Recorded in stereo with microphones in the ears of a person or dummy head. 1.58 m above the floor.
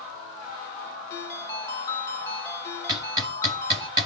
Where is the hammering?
25° right (ahead or behind), 3.5 m.